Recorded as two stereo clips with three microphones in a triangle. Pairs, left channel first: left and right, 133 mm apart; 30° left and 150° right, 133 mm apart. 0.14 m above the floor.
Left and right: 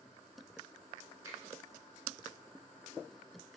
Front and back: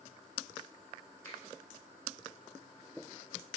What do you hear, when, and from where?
1.2 s a finger snap: 35° right, 1.1 m